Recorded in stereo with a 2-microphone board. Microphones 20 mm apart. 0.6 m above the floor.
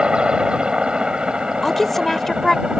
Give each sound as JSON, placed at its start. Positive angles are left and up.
{"t": 0.0, "sound": "a helicopter", "side_deg": -50}
{"t": 1.6, "sound": "a woman speaking", "side_deg": 15}